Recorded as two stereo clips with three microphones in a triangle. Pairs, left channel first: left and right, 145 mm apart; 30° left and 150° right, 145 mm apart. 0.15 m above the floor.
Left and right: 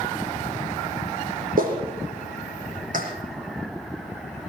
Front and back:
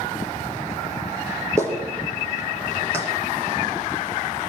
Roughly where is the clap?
Right.